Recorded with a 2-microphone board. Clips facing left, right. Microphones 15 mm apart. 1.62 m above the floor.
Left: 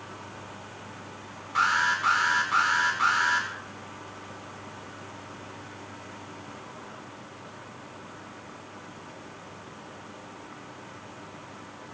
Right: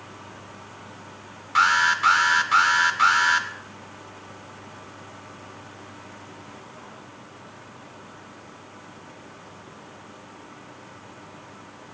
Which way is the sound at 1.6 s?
35° right (ahead or behind).